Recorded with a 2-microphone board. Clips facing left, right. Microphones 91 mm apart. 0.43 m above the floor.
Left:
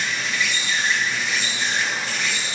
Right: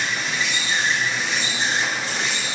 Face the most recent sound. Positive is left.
turn(degrees=-35)  # may be behind; listen again after turning